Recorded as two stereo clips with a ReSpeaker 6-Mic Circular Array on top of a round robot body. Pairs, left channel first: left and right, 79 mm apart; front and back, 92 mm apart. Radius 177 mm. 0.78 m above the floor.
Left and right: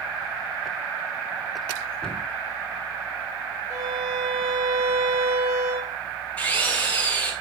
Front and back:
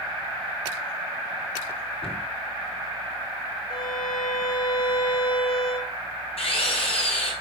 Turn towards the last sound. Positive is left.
turn(degrees=15)